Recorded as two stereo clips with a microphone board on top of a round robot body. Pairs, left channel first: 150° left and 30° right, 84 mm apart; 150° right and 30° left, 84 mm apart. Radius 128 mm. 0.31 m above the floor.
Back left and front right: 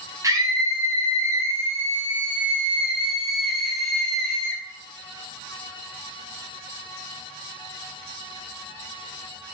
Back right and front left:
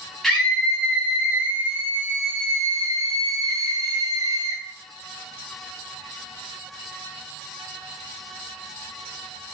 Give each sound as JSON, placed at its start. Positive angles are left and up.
{"t": 0.2, "sound": "a scream", "azimuth_deg": -60, "distance_m": 1.8}